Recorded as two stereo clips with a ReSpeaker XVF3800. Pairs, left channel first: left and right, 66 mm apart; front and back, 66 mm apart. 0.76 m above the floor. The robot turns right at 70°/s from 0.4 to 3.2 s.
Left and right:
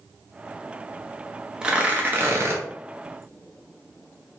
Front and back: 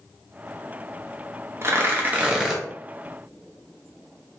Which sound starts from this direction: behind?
Tearing paper, at 1.6 s.